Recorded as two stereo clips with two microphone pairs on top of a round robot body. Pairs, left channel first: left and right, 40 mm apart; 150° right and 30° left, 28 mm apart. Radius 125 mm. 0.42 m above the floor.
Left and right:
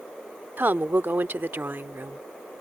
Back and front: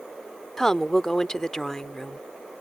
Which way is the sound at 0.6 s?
80° right.